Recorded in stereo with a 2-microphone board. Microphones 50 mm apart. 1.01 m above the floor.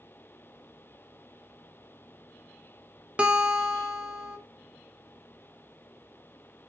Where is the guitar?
25° right (ahead or behind), 1.4 m.